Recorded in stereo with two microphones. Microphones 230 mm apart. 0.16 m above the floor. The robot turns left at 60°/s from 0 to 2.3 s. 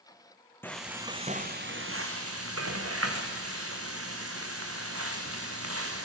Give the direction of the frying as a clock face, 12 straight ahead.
12 o'clock.